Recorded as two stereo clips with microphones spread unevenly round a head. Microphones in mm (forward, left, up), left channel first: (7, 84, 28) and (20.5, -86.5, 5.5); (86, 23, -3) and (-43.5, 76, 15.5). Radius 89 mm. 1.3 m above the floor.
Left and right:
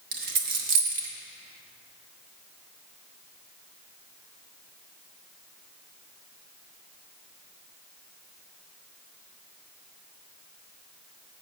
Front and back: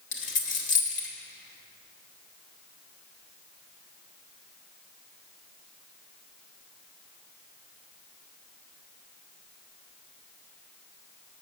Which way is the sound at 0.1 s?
55° right.